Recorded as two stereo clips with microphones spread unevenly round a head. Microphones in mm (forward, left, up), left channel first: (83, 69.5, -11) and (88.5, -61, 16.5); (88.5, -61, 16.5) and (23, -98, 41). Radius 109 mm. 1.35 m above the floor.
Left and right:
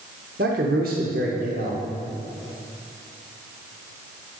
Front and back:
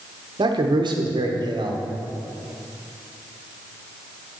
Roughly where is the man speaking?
Behind right.